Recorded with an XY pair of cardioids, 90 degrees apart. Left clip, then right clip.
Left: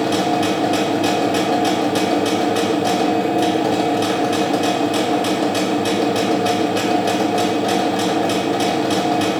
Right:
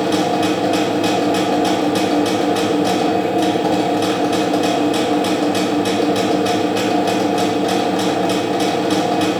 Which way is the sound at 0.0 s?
5° left.